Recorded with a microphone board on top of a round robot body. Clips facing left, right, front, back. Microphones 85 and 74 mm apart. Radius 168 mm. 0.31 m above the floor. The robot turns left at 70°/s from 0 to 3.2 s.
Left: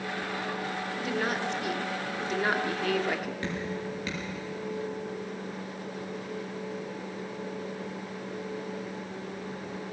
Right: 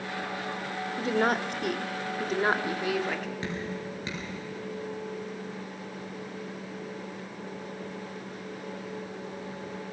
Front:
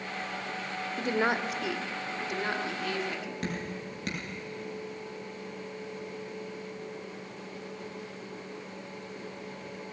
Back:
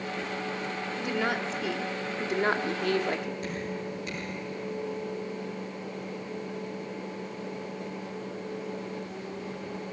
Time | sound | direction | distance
1.0 | a woman speaking | 35° right | 1.6 m
3.4 | dripping | 20° right | 6.5 m